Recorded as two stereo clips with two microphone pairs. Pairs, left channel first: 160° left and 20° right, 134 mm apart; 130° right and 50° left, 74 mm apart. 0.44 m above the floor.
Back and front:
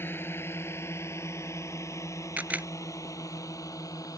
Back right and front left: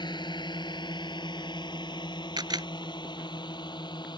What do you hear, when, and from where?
0.0 s a drone: 130° right; by 4.2 s 135° right
2.4 s a camera shutter: 55° left